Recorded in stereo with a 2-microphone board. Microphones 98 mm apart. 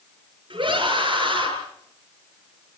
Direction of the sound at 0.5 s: 55° right (ahead or behind).